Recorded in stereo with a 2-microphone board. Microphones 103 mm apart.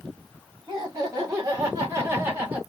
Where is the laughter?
45° right (ahead or behind), 2.5 m; by 2.6 s 20° right (ahead or behind), 2 m.